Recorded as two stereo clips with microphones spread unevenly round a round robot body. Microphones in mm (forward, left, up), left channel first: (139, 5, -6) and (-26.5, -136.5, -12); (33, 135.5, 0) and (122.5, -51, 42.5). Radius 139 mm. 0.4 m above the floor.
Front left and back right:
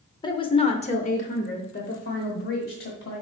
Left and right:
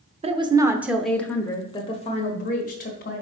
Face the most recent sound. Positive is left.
turn(degrees=90)